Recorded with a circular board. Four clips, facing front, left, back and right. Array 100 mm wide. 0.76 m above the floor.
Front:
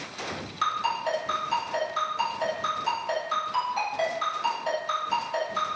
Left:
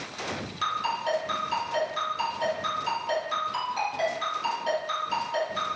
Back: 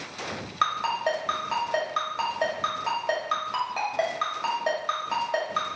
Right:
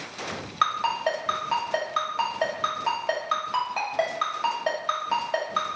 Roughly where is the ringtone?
Behind right.